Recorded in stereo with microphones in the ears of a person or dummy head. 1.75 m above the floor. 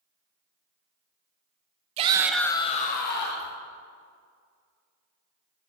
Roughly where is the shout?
Right.